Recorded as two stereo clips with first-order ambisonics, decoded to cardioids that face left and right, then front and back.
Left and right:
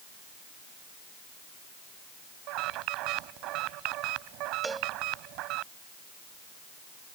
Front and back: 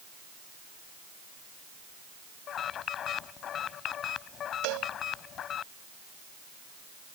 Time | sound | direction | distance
2.5 | an alarm | 55° right | ?
4.6 | a cowbell | 170° right | ?